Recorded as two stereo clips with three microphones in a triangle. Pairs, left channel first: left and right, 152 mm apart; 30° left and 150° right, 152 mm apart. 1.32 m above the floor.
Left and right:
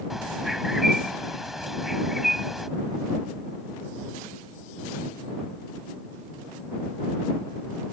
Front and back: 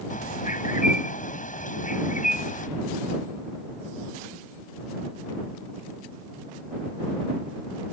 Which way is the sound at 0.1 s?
Straight ahead.